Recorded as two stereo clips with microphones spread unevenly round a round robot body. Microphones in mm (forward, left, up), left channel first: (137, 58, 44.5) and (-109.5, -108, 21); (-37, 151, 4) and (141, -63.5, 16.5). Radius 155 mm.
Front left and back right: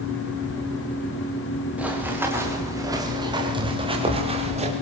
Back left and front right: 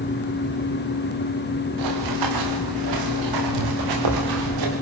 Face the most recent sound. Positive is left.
turn(degrees=-75)